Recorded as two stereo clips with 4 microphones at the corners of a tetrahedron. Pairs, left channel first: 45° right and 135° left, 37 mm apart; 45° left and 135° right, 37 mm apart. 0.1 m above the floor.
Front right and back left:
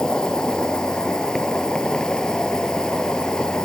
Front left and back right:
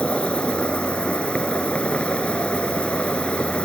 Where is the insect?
10° left.